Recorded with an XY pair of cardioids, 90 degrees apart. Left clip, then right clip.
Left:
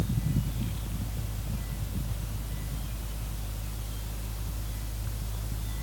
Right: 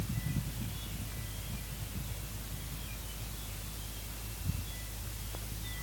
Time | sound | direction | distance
0.0 | a fan | 60° left | ?